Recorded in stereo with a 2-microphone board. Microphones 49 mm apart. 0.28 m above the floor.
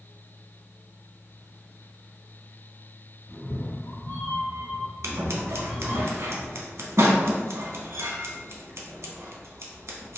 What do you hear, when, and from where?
3.3 s a cat meowing: 70° left (ahead or behind), 0.8 m; by 6.0 s 5° left (ahead or behind), 1.3 m
5.0 s scissors: 80° right, 0.5 m